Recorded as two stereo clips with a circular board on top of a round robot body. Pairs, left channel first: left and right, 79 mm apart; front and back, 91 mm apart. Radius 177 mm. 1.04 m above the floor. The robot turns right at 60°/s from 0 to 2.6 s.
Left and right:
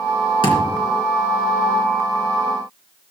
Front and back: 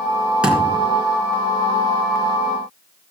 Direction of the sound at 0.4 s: 100° left.